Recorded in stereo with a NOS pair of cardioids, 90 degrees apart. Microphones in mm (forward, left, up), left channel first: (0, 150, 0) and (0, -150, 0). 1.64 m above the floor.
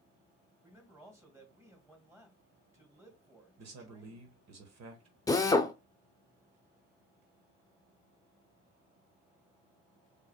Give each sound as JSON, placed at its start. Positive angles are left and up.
{"t": 0.6, "sound": "a man speaking", "azimuth_deg": -10, "distance_m": 2.5}
{"t": 3.6, "sound": "a man speaking", "azimuth_deg": -60, "distance_m": 1.2}
{"t": 5.3, "sound": "a drill", "azimuth_deg": 10, "distance_m": 0.7}